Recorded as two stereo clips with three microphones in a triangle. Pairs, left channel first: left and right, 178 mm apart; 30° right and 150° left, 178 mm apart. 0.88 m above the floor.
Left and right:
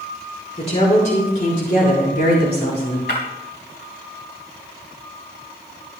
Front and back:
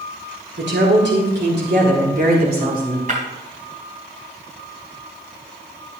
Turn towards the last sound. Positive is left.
turn(degrees=105)